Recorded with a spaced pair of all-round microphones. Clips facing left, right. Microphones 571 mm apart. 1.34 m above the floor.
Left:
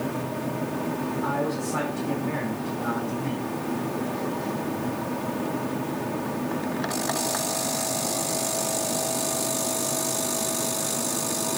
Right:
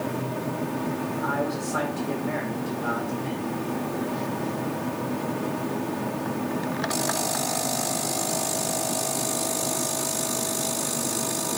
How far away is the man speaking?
About 5.5 m.